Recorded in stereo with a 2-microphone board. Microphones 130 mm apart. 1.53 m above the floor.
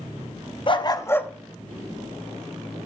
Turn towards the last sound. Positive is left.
turn(degrees=-30)  # may be behind; listen again after turning